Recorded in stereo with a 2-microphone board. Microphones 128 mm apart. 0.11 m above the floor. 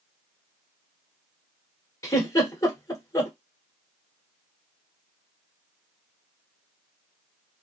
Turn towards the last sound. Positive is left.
turn(degrees=25)  # may be behind; listen again after turning